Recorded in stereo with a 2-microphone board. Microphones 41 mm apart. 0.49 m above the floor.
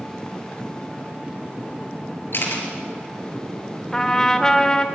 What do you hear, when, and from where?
2.3 s a camera shutter: 60° left (ahead or behind), 4.5 m
3.9 s a trumpet: 20° left (ahead or behind), 1.5 m